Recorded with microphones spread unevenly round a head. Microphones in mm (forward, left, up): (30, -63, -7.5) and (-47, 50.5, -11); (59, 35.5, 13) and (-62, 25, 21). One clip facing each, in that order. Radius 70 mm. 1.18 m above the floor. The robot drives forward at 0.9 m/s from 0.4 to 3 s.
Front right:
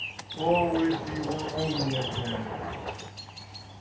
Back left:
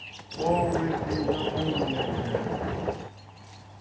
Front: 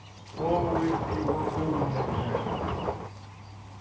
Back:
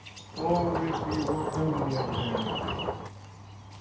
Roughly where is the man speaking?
Right.